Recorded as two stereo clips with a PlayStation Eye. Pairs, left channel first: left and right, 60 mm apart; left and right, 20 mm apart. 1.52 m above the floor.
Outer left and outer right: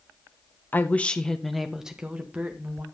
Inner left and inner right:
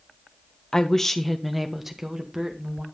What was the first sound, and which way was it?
A woman speaking, 30° left (ahead or behind).